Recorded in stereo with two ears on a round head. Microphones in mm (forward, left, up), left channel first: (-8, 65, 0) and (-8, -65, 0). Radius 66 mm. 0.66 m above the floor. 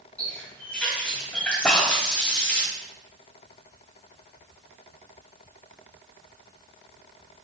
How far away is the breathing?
About 0.7 m.